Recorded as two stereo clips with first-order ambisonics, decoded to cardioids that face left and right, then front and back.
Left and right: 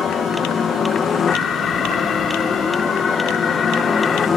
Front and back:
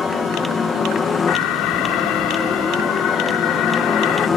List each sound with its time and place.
0.0 s a helicopter: 50° left; by 4.4 s 35° left
1.3 s an alarm: 25° left